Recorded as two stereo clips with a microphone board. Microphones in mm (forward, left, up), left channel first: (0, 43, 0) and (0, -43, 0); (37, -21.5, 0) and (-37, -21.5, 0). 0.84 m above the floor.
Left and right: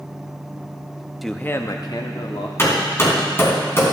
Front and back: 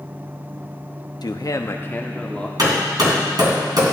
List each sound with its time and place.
1.2 s a man speaking: straight ahead, 0.8 m; by 2.5 s 75° left, 1.6 m
2.6 s hammering: 150° left, 3 m